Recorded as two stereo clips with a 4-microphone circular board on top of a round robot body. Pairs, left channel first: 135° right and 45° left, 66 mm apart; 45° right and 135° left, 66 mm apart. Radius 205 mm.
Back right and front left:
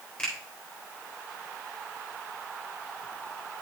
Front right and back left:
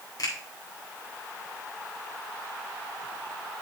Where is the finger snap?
60° right, 3.5 m.